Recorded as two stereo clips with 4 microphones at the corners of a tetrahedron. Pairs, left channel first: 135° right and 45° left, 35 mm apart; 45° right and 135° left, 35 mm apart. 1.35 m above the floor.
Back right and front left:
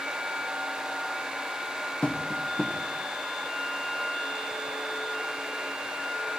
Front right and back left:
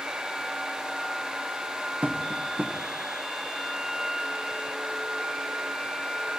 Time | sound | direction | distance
2.0 | tapping | straight behind | 1.1 m